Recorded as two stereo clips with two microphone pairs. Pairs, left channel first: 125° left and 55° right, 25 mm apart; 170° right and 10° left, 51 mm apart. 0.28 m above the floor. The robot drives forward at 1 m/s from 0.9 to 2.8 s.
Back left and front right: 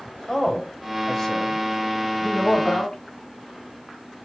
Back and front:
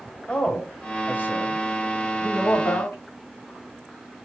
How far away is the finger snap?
I don't hear a finger snap.